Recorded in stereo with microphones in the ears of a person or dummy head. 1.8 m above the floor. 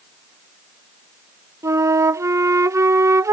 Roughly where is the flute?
Centre.